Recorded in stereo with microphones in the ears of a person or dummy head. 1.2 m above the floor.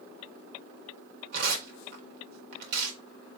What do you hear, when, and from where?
1.3 s tearing paper: 65° right (ahead or behind), 1.4 m